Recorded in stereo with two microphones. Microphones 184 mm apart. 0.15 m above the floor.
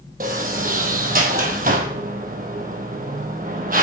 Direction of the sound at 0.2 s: 50° right (ahead or behind).